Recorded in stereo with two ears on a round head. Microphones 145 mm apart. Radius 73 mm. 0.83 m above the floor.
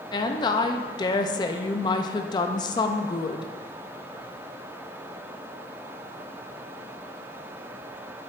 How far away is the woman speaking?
About 0.5 m.